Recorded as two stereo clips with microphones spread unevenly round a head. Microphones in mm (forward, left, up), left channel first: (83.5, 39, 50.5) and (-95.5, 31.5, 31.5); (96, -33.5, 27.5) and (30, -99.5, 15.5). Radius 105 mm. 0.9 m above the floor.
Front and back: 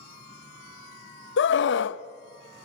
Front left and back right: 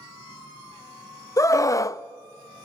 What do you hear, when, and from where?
1.4 s a scream: 15° right, 0.8 m